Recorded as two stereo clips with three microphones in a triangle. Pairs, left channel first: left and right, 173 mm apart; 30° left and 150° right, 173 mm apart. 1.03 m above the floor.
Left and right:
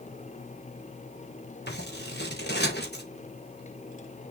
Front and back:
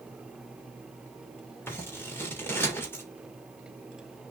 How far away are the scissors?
About 3 m.